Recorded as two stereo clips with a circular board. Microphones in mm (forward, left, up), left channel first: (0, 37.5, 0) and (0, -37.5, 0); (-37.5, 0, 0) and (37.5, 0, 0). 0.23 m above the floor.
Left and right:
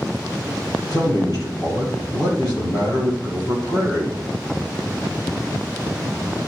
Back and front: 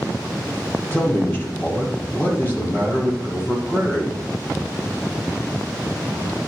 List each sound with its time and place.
0.9 s a man speaking: 120° left, 5.5 m